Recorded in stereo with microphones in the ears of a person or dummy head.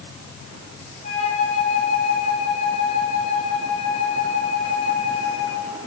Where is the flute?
45° left (ahead or behind), 3.5 m.